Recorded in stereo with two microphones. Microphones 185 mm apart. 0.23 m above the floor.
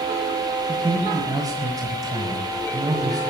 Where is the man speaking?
20° right (ahead or behind), 1.8 m.